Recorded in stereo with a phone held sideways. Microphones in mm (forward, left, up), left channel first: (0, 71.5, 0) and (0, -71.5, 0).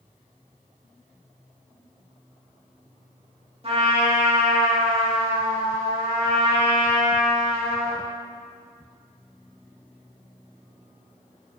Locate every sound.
3.6 s a trumpet: 45° right (ahead or behind), 1.9 m